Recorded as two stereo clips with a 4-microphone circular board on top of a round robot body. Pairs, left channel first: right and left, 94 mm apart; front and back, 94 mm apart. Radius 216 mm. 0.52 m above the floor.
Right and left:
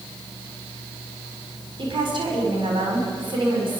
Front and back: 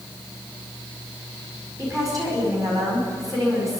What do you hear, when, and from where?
1.8 s a woman speaking: 125° left, 5.5 m